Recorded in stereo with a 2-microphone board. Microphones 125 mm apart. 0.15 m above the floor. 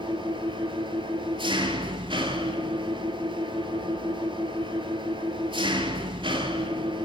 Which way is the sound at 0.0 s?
40° right (ahead or behind).